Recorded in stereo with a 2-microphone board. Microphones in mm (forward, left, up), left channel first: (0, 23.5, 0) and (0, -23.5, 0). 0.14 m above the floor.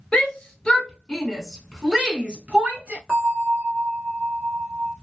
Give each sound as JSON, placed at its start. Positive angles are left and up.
{"t": 0.1, "sound": "a shout", "side_deg": 20, "distance_m": 1.3}
{"t": 3.1, "sound": "a bell", "side_deg": -5, "distance_m": 2.0}